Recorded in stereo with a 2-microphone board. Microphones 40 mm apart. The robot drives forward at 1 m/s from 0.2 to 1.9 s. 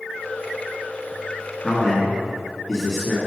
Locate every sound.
1.6 s a man speaking: 15° left (ahead or behind), 1.2 m